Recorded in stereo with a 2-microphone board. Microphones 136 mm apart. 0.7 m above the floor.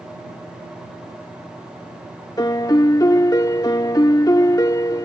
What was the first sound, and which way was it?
A piano, 30° left (ahead or behind).